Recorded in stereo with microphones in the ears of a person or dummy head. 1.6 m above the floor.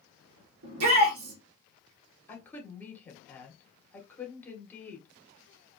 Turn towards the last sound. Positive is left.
turn(degrees=10)  # may be behind; listen again after turning